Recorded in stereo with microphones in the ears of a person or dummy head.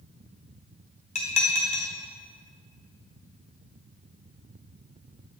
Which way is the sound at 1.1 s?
35° left (ahead or behind).